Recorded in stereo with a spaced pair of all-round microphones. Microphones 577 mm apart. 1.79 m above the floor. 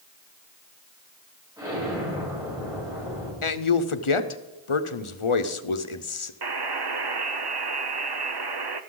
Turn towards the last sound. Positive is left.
turn(degrees=-45)  # may be behind; listen again after turning